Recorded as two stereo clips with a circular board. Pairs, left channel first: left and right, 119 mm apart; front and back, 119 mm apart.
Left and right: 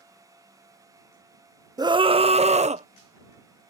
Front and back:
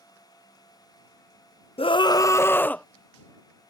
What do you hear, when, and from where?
1.8 s a scream: 35° right; by 2.9 s 80° right